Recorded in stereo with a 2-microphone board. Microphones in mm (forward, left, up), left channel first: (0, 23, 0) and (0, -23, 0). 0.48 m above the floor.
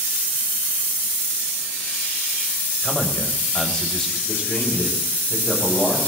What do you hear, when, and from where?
2.8 s a man speaking: 10° left (ahead or behind), 2.5 m
4.3 s a man speaking: 50° left (ahead or behind), 8.5 m